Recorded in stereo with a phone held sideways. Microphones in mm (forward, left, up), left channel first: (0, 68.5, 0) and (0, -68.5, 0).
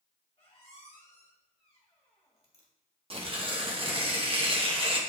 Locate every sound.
0.4 s a squeak: 45° left (ahead or behind), 1.9 m
3.1 s tearing paper: 40° right (ahead or behind), 1.0 m